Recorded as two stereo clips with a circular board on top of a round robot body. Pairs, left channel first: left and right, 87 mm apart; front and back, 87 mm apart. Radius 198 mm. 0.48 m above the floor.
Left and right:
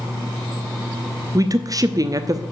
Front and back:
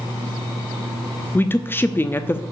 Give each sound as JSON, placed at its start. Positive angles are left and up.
{"t": 1.4, "sound": "a woman speaking", "azimuth_deg": -60, "distance_m": 1.1}